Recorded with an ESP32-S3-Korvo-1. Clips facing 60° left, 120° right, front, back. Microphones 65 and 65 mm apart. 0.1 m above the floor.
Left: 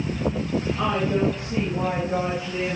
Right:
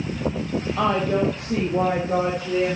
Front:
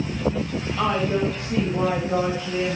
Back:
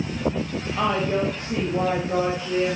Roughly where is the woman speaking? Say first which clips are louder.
Right 4 dB, even; behind right.